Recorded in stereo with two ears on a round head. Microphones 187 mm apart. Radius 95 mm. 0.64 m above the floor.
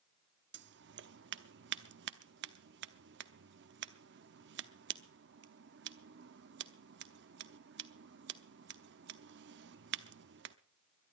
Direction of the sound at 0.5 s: 60° right (ahead or behind).